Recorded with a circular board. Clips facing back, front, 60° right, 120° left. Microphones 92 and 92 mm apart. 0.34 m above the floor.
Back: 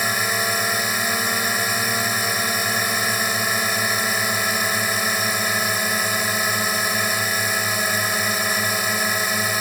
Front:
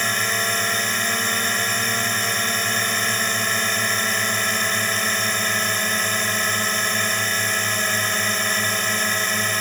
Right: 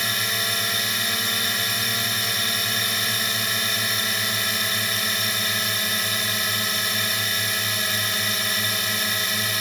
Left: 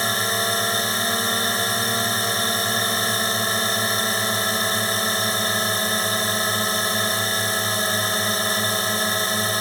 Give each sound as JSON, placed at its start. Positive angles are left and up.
{"t": 0.0, "sound": "a drone", "azimuth_deg": 105}